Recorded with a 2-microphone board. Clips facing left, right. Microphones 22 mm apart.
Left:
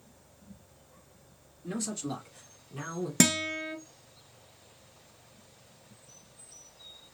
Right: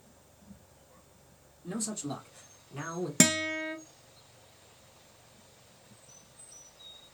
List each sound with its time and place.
1.6 s a man speaking: 20° left (ahead or behind), 1.1 m; by 3.1 s 25° right (ahead or behind), 1.1 m
3.2 s a guitar: 5° right (ahead or behind), 0.6 m